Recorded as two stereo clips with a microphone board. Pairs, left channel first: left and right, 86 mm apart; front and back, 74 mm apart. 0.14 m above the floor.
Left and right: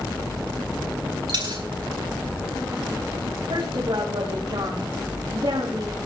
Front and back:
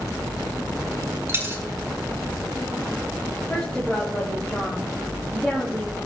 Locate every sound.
1.3 s a dropped coin: 120° right, 4.5 m
3.5 s a woman speaking: 80° right, 7.5 m